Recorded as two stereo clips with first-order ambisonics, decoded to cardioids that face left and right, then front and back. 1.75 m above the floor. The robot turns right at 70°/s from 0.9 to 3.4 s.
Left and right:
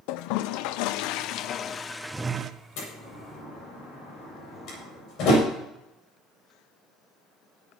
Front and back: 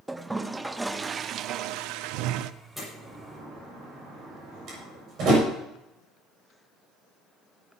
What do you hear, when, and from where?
0.1 s a toilet flushing: 95° left, 0.7 m; by 2.5 s 150° right, 0.7 m
2.8 s a door slam: 90° left, 7 m; by 5.4 s 135° left, 7 m